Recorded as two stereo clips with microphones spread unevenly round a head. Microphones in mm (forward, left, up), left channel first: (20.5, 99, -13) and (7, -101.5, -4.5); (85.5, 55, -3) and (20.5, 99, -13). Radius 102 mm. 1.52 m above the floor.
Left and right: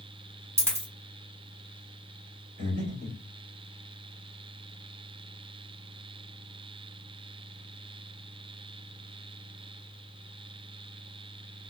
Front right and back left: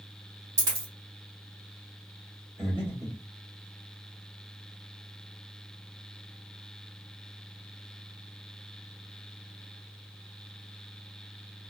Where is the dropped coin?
165° right, 1.6 m.